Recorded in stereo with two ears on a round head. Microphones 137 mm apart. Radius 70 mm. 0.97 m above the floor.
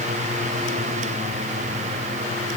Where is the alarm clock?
No alarm clock in this recording.